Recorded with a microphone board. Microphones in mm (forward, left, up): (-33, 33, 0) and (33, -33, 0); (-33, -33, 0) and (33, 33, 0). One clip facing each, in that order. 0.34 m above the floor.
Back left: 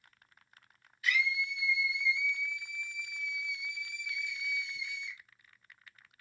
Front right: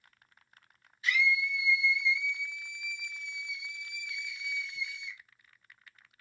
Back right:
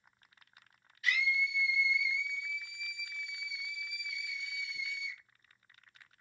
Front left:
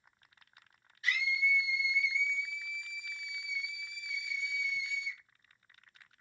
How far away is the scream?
About 1.9 m.